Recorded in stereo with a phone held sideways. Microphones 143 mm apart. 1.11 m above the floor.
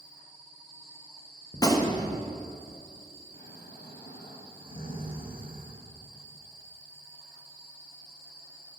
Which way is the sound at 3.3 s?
85° left.